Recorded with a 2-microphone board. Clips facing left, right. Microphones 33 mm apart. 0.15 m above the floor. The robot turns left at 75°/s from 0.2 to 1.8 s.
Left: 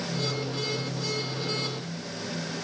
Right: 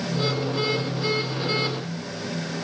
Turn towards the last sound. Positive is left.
No sound to turn to.